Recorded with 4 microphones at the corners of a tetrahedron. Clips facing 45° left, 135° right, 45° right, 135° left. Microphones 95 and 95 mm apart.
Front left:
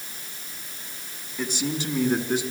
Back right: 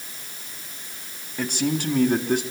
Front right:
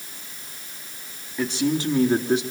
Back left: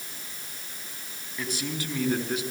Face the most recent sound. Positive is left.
turn(degrees=-105)